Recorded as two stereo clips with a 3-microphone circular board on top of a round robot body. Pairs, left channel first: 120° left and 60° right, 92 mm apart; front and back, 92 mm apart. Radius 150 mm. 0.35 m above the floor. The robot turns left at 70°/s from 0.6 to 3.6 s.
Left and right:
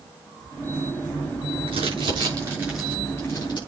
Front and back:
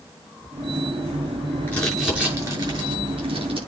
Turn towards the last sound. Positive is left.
turn(degrees=155)